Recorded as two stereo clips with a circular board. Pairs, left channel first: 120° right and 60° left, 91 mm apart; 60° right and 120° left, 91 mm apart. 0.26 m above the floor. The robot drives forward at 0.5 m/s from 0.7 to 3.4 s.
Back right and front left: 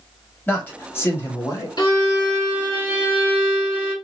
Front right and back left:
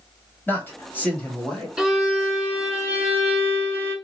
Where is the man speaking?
95° right, 1.2 m; by 1.7 s 135° right, 1.3 m.